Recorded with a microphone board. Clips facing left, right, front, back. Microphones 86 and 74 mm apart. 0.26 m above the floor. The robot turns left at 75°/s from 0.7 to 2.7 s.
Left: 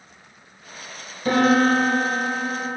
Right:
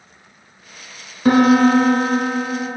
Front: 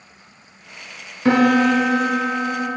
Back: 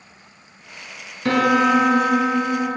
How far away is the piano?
About 1.2 m.